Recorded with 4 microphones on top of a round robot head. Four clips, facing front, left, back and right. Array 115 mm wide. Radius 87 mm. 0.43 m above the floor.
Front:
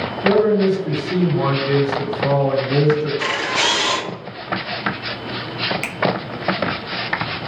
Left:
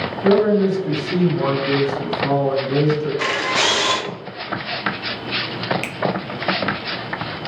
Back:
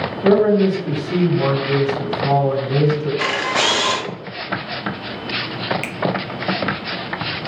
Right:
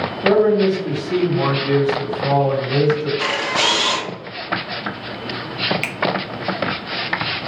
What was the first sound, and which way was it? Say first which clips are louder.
A man speaking: right 1 dB, back 1 dB; 150° right.